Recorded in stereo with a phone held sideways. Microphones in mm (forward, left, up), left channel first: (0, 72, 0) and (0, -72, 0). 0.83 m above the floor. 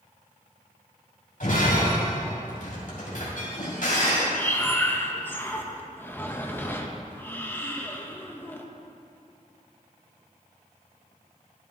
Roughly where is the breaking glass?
Left.